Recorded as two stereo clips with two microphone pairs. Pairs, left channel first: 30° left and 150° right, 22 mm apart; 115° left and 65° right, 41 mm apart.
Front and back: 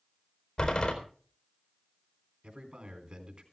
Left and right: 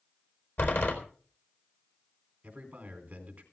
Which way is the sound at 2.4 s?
120° right.